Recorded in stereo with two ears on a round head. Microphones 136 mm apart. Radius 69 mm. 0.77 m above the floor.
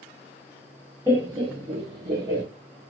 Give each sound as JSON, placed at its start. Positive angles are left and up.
{"t": 1.1, "sound": "laughter", "side_deg": -20, "distance_m": 0.8}